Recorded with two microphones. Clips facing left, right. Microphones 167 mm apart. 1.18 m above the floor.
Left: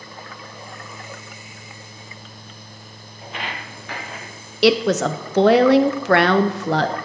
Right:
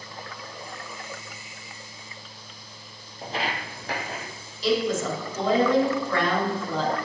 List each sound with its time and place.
3.2 s footsteps: 35° right (ahead or behind), 1.4 m
4.6 s a woman speaking: 80° left, 0.6 m